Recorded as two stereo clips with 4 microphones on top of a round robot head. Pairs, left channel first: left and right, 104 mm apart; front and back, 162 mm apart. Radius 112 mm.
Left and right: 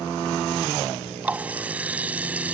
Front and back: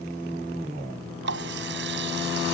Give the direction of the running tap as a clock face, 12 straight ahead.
6 o'clock.